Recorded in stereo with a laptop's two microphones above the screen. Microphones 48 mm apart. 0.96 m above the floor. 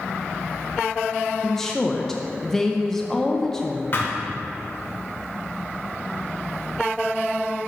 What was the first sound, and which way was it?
A woman speaking, 5° left (ahead or behind).